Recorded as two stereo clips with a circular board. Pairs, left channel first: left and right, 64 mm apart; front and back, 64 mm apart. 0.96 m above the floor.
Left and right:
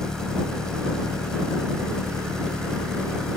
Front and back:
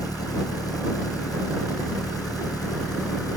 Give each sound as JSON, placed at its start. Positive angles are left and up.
{"t": 0.0, "sound": "an engine running", "azimuth_deg": 10}